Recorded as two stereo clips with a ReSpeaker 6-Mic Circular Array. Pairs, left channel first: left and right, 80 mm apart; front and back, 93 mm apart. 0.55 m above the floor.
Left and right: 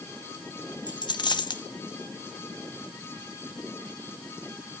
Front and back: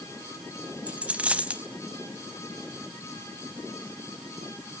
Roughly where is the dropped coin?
Left.